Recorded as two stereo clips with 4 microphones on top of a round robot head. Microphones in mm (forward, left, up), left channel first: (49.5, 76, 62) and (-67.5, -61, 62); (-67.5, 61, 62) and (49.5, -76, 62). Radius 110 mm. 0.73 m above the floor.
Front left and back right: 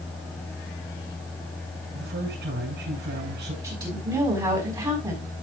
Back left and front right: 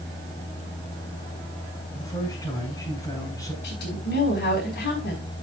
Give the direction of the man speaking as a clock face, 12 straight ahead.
5 o'clock.